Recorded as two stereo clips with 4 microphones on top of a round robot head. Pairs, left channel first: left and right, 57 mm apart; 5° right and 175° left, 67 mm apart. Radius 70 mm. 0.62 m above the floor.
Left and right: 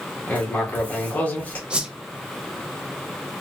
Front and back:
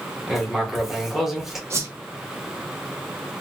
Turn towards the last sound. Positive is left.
turn(degrees=-155)